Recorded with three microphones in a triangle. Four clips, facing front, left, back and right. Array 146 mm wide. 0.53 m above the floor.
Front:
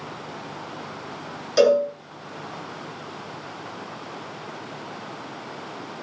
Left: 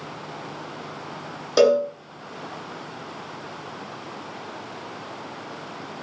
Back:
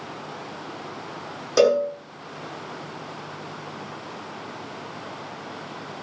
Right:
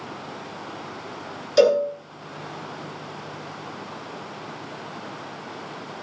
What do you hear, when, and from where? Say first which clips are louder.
1.6 s a cowbell: even, front 1 dB; 125° left, 8.5 m